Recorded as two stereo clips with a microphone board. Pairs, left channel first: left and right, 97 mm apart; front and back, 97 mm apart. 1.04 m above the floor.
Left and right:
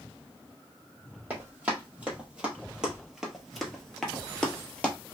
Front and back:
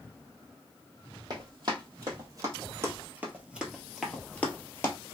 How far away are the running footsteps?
About 1.6 m.